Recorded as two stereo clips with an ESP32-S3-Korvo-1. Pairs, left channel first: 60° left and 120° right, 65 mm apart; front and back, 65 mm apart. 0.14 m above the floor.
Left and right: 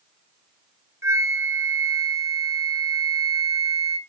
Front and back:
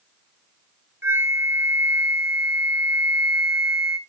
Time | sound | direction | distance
1.0 | a flute | 145° right | 1.1 m